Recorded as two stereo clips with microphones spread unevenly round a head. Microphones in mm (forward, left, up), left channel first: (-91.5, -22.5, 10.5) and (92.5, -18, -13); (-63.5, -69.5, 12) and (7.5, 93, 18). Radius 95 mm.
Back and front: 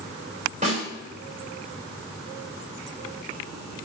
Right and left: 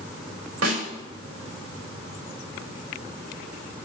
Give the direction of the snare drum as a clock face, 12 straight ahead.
10 o'clock.